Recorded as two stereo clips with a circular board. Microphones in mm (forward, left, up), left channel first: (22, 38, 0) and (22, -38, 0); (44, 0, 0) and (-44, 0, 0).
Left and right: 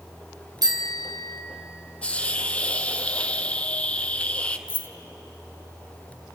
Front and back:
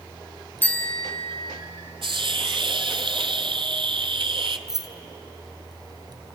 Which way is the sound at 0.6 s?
65° right.